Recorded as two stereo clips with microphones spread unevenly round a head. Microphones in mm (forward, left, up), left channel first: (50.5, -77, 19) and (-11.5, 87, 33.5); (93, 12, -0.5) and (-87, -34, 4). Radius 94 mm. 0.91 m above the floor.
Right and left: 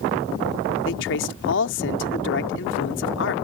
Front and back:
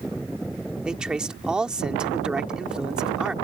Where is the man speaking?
80° right.